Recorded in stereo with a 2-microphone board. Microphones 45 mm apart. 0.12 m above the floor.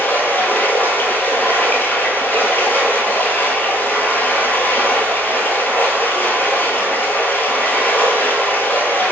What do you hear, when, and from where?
0.0 s running water: 45° left (ahead or behind), 0.9 m